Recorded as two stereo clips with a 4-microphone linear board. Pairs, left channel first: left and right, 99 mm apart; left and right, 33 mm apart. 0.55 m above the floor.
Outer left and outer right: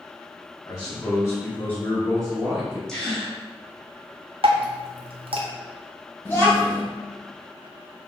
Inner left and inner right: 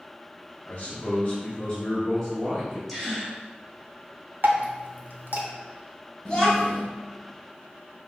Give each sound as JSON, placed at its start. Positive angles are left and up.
{"t": 0.7, "sound": "a man speaking", "side_deg": 40, "distance_m": 0.9}
{"t": 2.9, "sound": "a gasp", "side_deg": 5, "distance_m": 1.3}
{"t": 4.4, "sound": "dripping", "side_deg": -70, "distance_m": 0.7}
{"t": 6.2, "sound": "a child speaking", "side_deg": 25, "distance_m": 1.9}